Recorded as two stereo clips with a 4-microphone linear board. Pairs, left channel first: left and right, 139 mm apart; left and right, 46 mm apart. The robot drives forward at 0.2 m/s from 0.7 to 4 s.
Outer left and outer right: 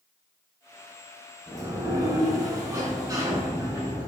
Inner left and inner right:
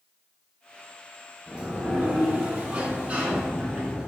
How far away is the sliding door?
About 0.6 m.